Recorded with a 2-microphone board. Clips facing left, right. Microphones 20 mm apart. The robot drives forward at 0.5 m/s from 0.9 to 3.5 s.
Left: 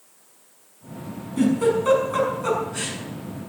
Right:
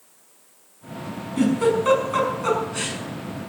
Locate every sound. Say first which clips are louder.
1.4 s a giggle: even; 20° right (ahead or behind), 5.5 m